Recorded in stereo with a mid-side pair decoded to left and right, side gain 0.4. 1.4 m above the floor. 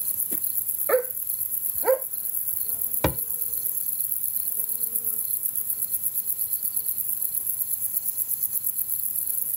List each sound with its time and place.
0.9 s a dog barking: 25° right; by 2.1 s 20° right
3.0 s a thud: 15° left